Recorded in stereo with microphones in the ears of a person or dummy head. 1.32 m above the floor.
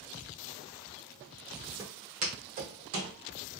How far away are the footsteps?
About 1.4 m.